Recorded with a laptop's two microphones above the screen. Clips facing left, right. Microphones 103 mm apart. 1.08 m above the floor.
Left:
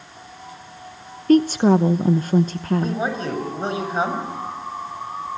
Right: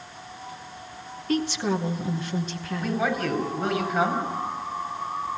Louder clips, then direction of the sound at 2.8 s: Left 2 dB; 25° left (ahead or behind).